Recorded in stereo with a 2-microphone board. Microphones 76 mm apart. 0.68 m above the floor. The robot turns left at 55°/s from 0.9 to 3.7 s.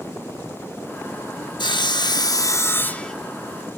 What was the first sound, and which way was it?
Sawing, 95° left.